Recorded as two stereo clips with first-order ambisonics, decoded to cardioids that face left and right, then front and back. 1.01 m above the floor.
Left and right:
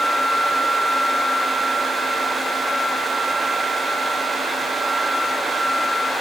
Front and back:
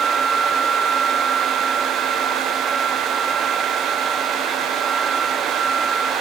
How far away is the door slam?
I don't hear a door slam.